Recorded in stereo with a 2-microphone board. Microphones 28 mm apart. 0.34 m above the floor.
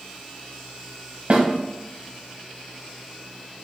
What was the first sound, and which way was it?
A snare drum, 60° right (ahead or behind).